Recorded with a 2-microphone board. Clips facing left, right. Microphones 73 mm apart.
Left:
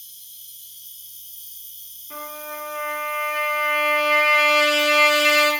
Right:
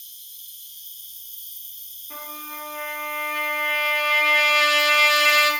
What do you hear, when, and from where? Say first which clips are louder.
0.0 s an insect: right 1 dB; 80° right, 2.5 m
2.1 s a trumpet: left 4 dB; centre (ahead or behind), 1.6 m